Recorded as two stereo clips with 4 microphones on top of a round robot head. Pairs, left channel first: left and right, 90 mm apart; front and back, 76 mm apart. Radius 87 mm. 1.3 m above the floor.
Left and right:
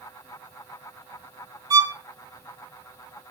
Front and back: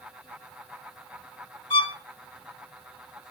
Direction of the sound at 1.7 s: 50° right.